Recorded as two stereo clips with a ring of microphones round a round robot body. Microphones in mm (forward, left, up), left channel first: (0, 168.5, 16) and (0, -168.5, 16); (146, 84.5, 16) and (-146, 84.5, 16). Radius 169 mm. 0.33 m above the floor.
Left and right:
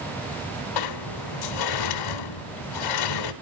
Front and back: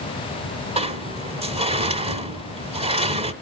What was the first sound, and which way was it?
A sliding door, 110° left.